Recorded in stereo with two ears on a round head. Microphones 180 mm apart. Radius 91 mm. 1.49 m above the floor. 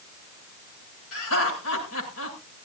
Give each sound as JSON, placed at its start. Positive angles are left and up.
{"t": 1.1, "sound": "laughter", "side_deg": 85, "distance_m": 8.5}